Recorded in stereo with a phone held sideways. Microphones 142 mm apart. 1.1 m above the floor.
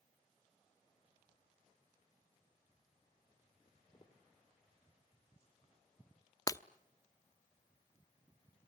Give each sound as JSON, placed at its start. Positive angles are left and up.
{"t": 3.6, "sound": "footsteps", "side_deg": 40, "distance_m": 1.9}
{"t": 6.5, "sound": "breaking glass", "side_deg": 25, "distance_m": 0.7}